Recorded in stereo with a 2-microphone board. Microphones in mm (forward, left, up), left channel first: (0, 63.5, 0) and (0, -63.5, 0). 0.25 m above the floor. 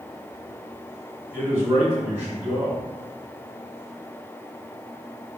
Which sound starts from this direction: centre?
A man speaking, at 1.3 s.